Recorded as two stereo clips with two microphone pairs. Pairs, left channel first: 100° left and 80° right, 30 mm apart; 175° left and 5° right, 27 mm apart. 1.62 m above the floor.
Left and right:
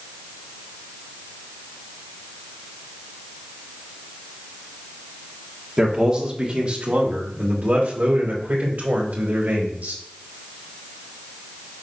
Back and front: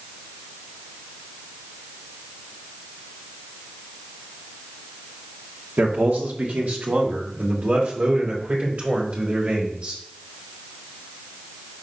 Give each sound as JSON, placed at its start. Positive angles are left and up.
{"t": 5.8, "sound": "a man speaking", "azimuth_deg": -10, "distance_m": 1.5}